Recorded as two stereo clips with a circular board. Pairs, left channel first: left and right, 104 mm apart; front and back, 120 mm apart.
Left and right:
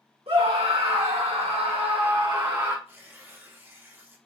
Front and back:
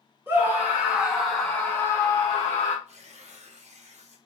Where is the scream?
110° right, 1.2 m; by 2.8 s 30° right, 0.7 m.